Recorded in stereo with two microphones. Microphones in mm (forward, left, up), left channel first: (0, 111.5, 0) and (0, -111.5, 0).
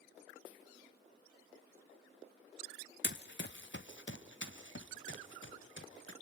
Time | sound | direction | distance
3.0 | running footsteps | 50° left (ahead or behind) | 0.6 m